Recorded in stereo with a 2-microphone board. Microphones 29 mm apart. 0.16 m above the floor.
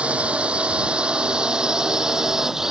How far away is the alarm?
I don't hear an alarm.